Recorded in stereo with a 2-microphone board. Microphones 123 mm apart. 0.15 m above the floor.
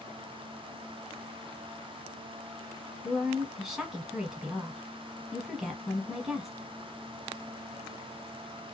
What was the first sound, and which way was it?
A woman speaking, 5° right (ahead or behind).